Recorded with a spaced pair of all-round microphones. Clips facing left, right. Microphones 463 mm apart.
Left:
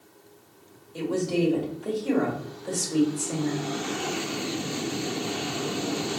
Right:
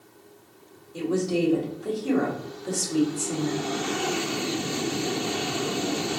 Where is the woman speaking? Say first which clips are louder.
Right 1 dB; 60° right (ahead or behind), 1.5 m.